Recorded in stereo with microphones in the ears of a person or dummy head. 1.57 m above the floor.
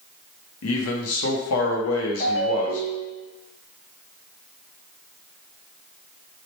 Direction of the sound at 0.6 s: 75° left (ahead or behind).